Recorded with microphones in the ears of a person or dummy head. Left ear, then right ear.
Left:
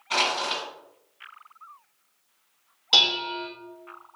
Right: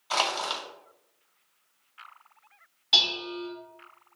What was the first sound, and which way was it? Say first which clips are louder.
Crushing: left 3 dB; 35° right (ahead or behind).